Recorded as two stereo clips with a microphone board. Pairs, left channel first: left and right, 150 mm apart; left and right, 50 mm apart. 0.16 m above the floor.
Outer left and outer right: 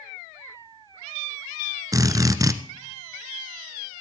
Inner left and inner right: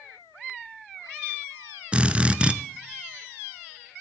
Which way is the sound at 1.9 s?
20° right (ahead or behind).